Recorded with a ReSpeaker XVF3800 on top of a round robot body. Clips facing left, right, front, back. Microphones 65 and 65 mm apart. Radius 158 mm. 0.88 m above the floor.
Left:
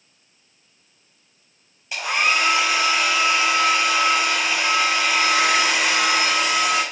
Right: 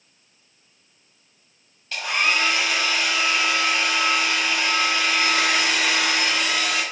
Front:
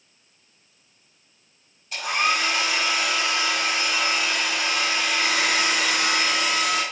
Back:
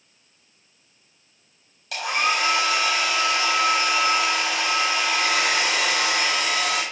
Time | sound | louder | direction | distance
1.9 | a hair dryer | left 2 dB, even | 165° left | 5.5 m